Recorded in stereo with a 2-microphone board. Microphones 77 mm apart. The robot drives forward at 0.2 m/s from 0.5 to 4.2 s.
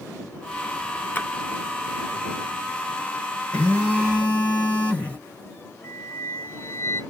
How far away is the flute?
About 0.9 m.